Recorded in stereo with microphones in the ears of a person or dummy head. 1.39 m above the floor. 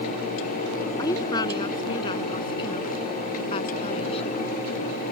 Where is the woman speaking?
20° left (ahead or behind); by 4.4 s 35° left (ahead or behind).